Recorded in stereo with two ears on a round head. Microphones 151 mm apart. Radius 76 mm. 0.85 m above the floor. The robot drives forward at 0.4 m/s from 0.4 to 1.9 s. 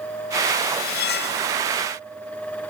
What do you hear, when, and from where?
0.8 s cutlery clinking: 55° left (ahead or behind), 1.2 m; by 1.4 s 70° left (ahead or behind), 1.1 m